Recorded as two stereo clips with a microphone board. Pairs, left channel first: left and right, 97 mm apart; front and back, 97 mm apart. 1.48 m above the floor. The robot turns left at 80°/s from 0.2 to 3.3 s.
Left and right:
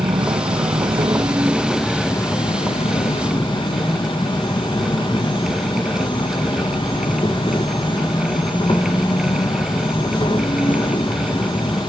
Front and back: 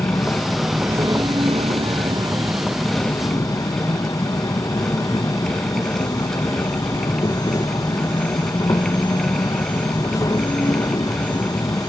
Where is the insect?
60° right, 1.3 m; by 11.9 s 55° left, 1.3 m.